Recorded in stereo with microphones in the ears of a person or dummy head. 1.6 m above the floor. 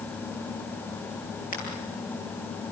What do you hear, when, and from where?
1.5 s a crack: 40° left (ahead or behind), 8 m